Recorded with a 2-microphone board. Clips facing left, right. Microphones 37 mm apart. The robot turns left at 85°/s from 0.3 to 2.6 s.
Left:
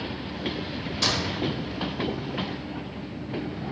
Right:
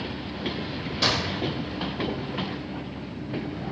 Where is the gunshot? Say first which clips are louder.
Right 2 dB; 15° right (ahead or behind), 1.0 m; by 1.4 s 20° right (ahead or behind), 1.0 m.